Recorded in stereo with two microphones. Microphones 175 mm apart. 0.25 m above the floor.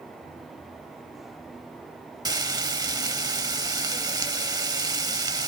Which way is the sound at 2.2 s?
20° right (ahead or behind).